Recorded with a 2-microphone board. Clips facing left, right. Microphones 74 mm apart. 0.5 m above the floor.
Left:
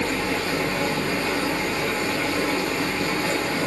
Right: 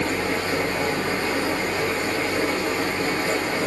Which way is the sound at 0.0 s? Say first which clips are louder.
Right 1 dB; 40° right (ahead or behind).